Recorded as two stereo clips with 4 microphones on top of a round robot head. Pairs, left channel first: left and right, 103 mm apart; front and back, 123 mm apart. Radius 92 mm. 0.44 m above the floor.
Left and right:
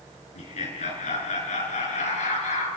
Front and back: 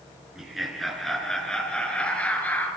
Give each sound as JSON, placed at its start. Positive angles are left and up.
{"t": 0.3, "sound": "laughter", "azimuth_deg": 95, "distance_m": 6.5}